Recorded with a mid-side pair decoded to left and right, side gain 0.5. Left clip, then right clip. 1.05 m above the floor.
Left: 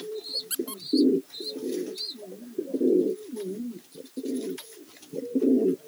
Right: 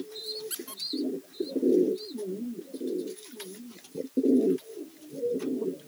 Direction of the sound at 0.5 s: 20° left.